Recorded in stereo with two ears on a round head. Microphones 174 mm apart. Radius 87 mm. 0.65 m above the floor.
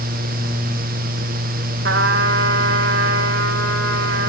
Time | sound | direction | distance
1.8 | a trumpet | 60° right (ahead or behind) | 1.4 m